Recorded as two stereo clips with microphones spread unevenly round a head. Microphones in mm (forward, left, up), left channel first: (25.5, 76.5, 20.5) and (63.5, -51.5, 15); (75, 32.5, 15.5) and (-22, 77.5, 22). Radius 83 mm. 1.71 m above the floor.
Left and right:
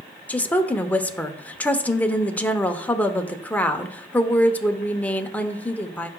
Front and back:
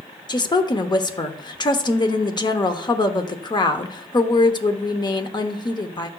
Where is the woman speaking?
25° left, 0.8 m.